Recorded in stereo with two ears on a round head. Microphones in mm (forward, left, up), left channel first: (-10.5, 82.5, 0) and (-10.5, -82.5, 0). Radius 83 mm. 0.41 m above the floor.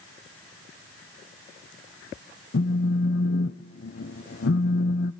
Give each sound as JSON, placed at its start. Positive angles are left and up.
{"t": 2.5, "sound": "a phone buzzing", "side_deg": 60, "distance_m": 0.7}